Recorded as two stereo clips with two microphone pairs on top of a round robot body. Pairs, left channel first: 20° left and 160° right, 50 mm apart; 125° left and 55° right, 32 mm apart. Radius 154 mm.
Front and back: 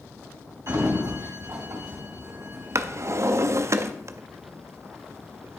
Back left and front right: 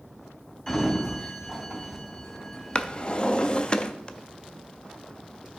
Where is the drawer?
170° right, 0.5 m.